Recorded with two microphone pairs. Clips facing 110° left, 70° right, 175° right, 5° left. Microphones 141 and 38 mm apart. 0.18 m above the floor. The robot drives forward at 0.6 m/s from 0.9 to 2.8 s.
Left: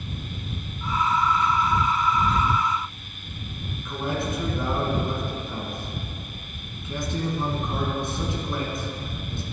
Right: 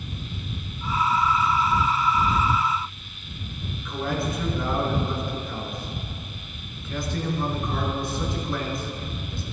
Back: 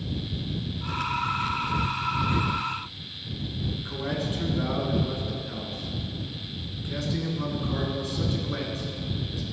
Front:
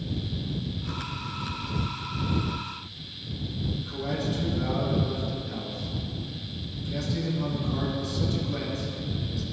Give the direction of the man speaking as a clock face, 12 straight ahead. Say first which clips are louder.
Even, back 1 dB; 6 o'clock.